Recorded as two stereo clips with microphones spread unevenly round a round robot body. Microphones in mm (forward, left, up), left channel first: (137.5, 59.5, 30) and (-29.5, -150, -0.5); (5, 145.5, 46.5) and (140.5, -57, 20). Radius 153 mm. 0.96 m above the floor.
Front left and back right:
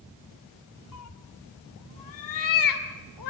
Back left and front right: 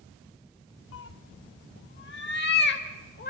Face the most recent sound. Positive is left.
turn(degrees=75)